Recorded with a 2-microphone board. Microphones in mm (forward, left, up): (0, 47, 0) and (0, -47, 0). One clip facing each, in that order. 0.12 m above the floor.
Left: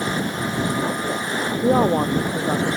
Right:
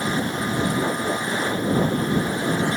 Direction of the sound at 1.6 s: 70° left (ahead or behind).